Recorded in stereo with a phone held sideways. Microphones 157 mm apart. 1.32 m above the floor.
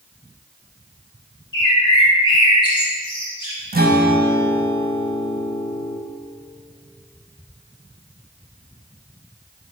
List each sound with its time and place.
1.5 s a bird: 30° left (ahead or behind), 1.6 m
3.7 s a guitar: 80° right, 0.9 m